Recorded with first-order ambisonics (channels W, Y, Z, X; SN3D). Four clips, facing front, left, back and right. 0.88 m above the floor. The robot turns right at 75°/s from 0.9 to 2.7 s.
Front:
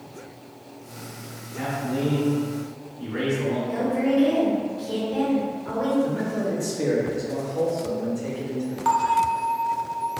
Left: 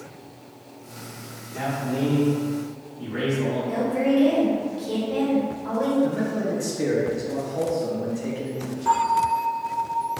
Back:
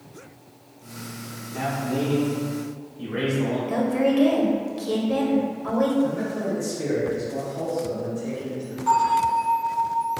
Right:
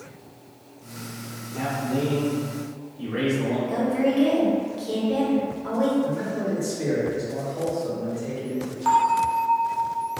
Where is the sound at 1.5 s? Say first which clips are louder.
Even, back 1 dB; 140° left, 1.8 m; by 3.6 s 130° right, 1.8 m.